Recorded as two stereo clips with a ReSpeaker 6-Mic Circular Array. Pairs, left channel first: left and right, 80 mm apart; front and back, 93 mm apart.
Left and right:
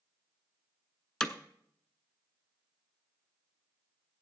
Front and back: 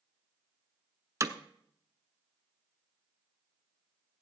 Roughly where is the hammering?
Behind.